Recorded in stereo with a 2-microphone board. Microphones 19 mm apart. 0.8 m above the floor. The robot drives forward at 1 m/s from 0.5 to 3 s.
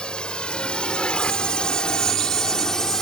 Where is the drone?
60° left (ahead or behind); by 3.0 s 25° left (ahead or behind).